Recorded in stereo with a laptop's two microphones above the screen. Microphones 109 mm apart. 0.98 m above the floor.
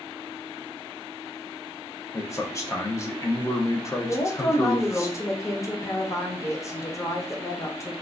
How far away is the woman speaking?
About 0.5 m.